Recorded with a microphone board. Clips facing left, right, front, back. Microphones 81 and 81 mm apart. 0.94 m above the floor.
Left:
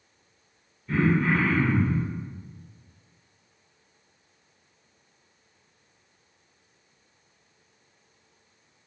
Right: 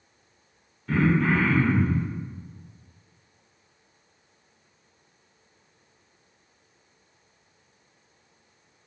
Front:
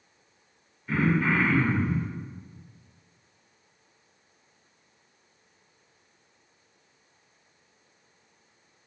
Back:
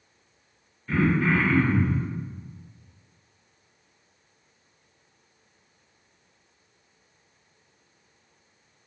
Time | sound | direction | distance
0.9 | throat clearing | 80° right | 0.6 m